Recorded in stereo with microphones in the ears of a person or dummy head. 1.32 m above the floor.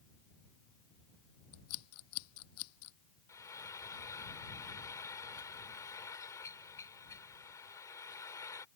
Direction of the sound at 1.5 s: 85° left.